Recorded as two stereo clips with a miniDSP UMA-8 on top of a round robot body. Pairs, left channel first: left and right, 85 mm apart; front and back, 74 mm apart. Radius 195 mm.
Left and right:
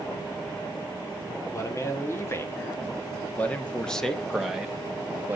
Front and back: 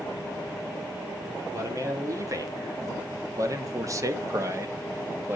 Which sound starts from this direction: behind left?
A man speaking, at 1.5 s.